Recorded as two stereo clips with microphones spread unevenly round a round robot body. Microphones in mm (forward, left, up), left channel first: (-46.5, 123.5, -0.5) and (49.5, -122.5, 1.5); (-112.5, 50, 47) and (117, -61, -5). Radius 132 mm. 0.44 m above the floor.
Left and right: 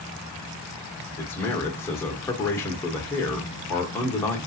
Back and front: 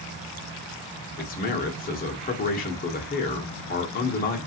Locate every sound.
1.2 s a man speaking: 175° left, 0.8 m